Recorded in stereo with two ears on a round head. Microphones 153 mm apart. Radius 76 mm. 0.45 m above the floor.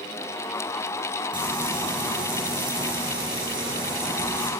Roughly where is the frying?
Right.